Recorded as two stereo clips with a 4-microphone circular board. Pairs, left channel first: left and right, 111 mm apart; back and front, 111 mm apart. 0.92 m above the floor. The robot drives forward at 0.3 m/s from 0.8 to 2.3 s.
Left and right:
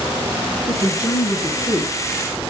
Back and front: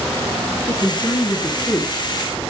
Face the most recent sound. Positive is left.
turn(degrees=135)